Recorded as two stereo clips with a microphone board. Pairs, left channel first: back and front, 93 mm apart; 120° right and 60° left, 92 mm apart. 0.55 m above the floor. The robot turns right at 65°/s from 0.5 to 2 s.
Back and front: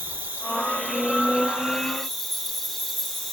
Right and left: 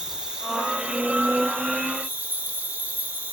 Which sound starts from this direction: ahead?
An insect, at 0.0 s.